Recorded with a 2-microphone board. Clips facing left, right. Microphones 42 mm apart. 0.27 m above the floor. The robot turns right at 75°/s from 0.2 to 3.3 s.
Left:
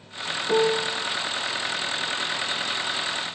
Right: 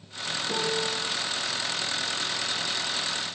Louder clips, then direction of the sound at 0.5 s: Left 8 dB; 140° left.